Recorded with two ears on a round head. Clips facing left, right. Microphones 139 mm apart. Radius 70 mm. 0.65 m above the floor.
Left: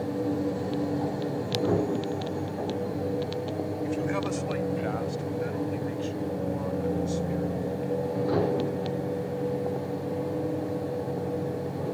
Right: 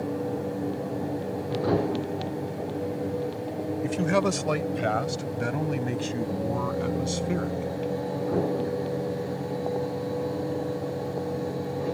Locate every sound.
3.8 s a man speaking: 65° right (ahead or behind); by 7.7 s 75° right (ahead or behind)